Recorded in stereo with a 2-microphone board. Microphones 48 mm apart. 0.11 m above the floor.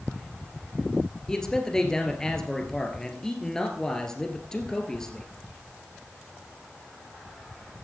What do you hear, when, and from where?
1.3 s a man speaking: 15° left (ahead or behind), 1.9 m